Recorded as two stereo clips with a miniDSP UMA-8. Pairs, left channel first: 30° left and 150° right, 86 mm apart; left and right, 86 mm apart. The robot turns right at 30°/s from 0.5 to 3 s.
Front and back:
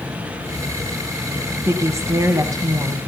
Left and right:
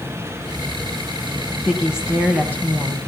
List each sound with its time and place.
1.6 s a woman speaking: 175° right, 1.4 m; by 3.0 s 135° right, 1.4 m